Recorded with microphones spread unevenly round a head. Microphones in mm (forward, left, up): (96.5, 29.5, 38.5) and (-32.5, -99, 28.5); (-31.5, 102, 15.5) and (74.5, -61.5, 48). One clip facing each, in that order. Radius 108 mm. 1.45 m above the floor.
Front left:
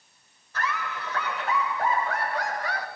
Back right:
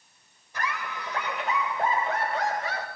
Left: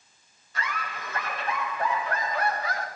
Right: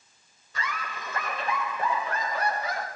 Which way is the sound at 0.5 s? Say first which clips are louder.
Front left 2 dB, left 1 dB; 60° right.